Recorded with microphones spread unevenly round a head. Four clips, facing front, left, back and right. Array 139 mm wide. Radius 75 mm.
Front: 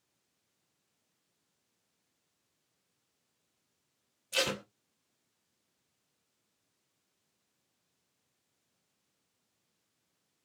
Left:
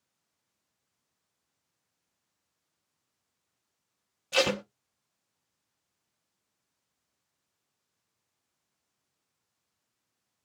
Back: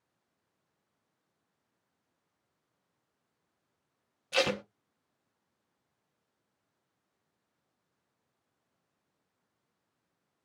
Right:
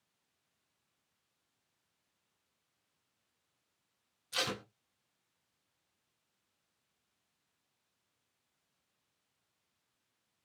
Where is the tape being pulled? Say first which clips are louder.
Left 12 dB, back 5 dB; 115° left, 0.7 m.